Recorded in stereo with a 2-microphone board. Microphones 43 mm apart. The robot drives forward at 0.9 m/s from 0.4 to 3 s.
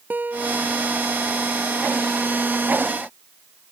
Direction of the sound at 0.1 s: 45° right (ahead or behind).